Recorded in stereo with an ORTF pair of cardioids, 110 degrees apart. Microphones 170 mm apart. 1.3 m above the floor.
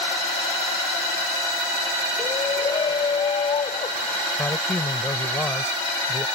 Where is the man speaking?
15° left.